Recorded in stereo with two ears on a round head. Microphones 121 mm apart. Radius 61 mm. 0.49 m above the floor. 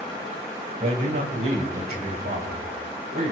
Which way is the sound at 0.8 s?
60° right (ahead or behind).